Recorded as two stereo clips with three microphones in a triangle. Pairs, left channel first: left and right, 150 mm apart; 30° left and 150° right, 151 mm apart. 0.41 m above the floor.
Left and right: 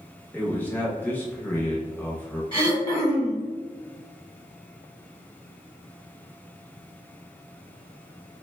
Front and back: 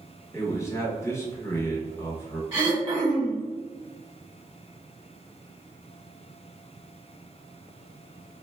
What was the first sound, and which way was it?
A man speaking, 35° left.